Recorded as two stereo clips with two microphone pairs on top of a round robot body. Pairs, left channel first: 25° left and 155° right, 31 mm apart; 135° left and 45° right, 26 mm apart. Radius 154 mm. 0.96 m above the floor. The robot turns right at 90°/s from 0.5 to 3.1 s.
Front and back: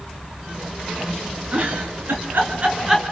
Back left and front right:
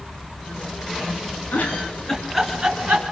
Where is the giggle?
155° left, 2.5 m; by 3.0 s 70° right, 2.5 m.